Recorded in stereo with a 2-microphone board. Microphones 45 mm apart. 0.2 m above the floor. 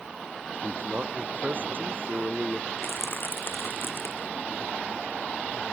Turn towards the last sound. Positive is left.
turn(degrees=60)  # may be behind; listen again after turning